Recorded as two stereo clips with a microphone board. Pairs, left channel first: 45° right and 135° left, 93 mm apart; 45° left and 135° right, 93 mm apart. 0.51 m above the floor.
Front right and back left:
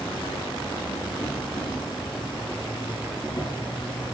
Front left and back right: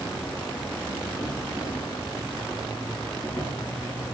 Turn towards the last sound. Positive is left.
turn(degrees=-15)